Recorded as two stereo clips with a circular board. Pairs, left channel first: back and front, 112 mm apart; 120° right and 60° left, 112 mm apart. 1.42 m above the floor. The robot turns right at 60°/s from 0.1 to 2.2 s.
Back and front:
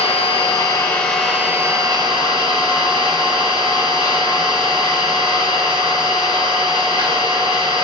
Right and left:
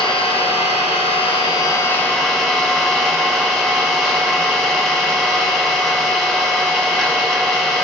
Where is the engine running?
155° right, 0.8 m; by 7.8 s 30° right, 0.8 m.